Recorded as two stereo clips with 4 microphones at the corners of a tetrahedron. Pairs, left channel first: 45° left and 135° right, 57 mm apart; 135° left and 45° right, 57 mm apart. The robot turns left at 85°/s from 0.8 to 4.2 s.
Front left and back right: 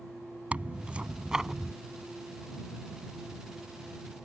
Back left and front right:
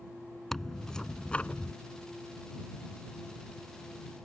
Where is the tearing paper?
150° right; by 1.7 s 130° left.